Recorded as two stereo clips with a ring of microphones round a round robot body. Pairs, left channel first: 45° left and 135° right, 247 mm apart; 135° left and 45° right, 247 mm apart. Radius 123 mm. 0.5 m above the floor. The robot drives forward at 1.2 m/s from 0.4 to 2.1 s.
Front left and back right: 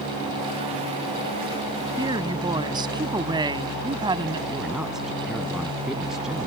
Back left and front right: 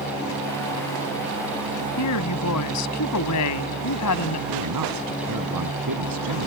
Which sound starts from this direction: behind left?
A woman speaking, at 2.0 s.